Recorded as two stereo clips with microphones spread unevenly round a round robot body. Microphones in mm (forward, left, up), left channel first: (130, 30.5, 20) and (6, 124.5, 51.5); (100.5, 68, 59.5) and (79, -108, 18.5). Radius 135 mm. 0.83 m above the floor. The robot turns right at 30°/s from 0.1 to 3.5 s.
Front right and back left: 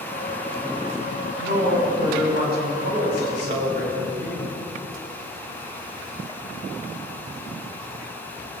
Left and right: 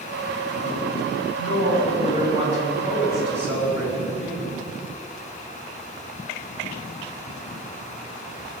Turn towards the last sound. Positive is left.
turn(degrees=-175)